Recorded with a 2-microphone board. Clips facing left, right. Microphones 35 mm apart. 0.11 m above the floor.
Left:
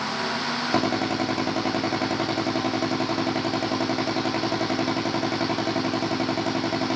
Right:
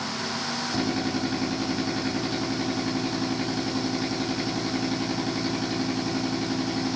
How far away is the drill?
About 8 m.